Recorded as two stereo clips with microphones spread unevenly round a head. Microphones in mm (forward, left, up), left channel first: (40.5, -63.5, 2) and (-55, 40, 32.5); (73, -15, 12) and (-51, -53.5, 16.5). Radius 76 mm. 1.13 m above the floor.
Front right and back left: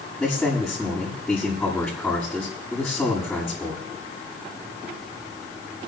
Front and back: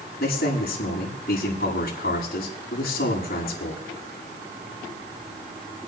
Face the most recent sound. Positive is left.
turn(degrees=40)